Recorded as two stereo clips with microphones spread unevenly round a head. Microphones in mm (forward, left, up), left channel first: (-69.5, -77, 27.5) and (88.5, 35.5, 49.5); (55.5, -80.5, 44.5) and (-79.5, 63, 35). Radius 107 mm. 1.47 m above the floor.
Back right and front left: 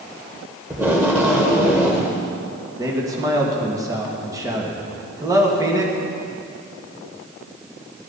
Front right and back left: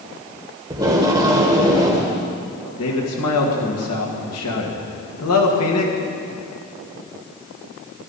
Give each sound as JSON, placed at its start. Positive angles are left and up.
{"t": 0.7, "sound": "tape being pulled", "azimuth_deg": 80, "distance_m": 1.2}
{"t": 2.8, "sound": "a man speaking", "azimuth_deg": -40, "distance_m": 1.7}